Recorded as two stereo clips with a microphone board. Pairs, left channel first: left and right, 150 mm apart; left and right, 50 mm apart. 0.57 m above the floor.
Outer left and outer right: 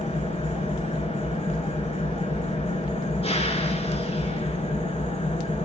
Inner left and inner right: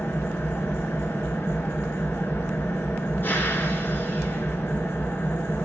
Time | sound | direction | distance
0.0 | an engine running | 40° left (ahead or behind) | 1.6 m